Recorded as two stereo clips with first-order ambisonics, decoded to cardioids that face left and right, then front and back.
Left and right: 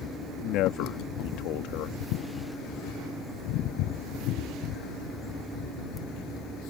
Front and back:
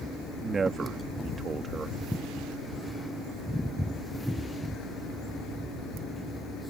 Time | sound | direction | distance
0.4 | a man speaking | 110° left | ?